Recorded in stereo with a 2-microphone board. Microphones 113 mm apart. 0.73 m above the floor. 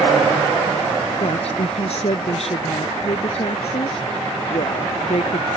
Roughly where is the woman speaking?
Left.